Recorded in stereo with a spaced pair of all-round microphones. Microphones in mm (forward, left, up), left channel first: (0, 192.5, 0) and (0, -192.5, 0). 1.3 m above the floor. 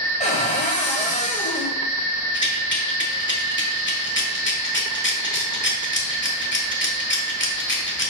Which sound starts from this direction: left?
A rattle, at 2.3 s.